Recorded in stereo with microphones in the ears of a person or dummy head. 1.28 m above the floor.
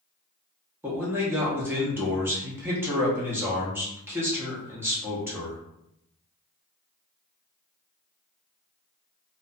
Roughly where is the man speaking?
Centre.